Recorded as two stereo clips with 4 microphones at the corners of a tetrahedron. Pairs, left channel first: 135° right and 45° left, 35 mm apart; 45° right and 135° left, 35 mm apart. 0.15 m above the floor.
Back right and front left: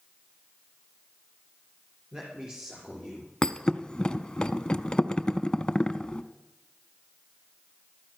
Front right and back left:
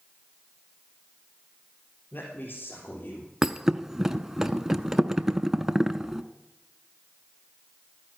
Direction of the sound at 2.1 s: 25° right.